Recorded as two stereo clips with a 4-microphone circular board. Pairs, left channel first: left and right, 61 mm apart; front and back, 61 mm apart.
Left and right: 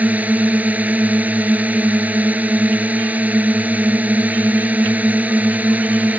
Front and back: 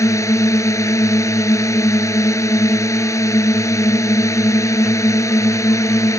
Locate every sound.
0.0 s a drone: 30° right